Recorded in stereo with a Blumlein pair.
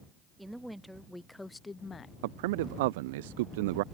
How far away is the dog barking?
No dog barking in this recording.